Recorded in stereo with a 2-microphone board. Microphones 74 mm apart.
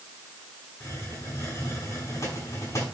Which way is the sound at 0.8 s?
40° left (ahead or behind).